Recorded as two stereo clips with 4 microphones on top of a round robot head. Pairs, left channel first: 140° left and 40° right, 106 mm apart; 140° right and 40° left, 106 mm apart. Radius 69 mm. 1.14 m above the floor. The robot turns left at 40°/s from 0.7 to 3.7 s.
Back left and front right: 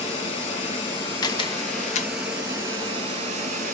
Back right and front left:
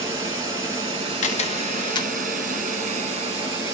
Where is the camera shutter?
165° right, 0.8 m; by 2.1 s 160° left, 0.8 m.